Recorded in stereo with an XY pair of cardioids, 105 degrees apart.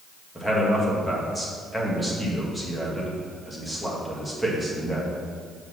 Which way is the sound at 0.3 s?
5° left.